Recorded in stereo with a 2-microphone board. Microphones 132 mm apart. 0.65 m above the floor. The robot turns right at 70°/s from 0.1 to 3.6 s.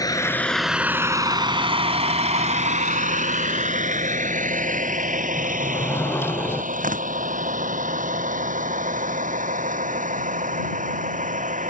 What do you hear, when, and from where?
0.0 s a vehicle: 25° left (ahead or behind); by 11.7 s 75° right (ahead or behind)
5.4 s a sliding door: 15° left (ahead or behind)
6.7 s tearing paper: 90° right